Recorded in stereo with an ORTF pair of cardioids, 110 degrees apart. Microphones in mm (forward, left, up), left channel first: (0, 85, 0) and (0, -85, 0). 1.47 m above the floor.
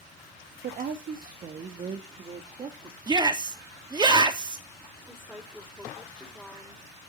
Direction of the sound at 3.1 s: 25° right.